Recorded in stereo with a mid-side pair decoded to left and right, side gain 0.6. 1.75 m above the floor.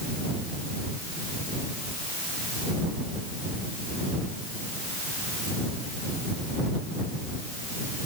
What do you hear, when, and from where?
Only background noise.